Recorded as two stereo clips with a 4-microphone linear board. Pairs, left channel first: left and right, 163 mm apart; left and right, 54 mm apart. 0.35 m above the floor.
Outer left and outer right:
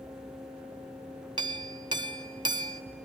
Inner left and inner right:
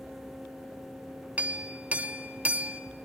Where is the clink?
30° right (ahead or behind), 0.5 m.